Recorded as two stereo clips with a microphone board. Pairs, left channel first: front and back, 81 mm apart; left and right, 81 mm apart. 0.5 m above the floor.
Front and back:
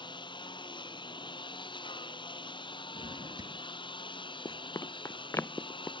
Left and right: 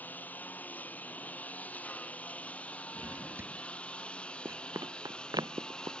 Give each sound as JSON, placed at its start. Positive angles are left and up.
{"t": 0.0, "sound": "a lawn mower", "azimuth_deg": 20}
{"t": 3.0, "sound": "a drawer", "azimuth_deg": -150}
{"t": 4.5, "sound": "running footsteps", "azimuth_deg": -35}